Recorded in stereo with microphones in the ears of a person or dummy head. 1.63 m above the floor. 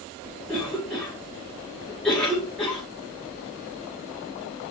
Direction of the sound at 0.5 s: Centre (ahead or behind).